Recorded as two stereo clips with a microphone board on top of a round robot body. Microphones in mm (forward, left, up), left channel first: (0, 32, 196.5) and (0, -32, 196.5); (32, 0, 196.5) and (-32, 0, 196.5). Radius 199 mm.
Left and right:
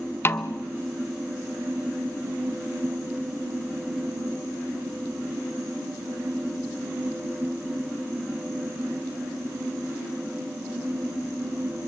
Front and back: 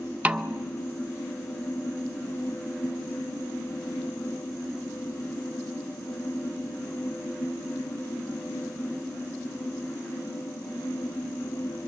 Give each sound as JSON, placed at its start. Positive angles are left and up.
{"t": 0.2, "sound": "a snare drum", "azimuth_deg": 125, "distance_m": 1.0}